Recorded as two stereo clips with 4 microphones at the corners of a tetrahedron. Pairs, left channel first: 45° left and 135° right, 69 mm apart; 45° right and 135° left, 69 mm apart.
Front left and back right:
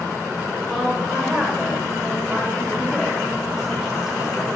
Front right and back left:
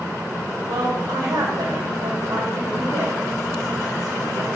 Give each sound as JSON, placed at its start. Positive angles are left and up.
{"t": 0.7, "sound": "a woman speaking", "azimuth_deg": 135, "distance_m": 3.0}